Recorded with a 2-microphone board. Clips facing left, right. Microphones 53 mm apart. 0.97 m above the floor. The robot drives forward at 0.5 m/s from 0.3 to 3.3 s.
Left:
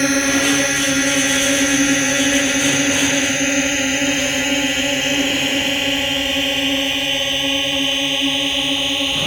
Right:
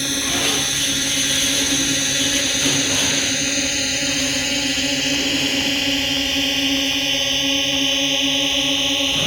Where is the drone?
45° left (ahead or behind); by 9.3 s 10° left (ahead or behind).